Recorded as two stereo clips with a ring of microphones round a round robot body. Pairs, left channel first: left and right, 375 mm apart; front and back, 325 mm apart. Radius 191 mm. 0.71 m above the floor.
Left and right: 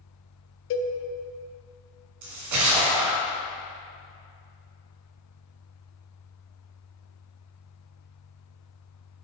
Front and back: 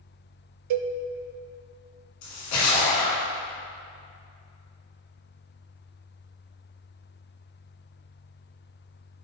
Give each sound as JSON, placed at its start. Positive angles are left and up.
{"t": 0.7, "sound": "a cowbell", "azimuth_deg": 145, "distance_m": 0.6}
{"t": 2.2, "sound": "a splash", "azimuth_deg": -50, "distance_m": 1.8}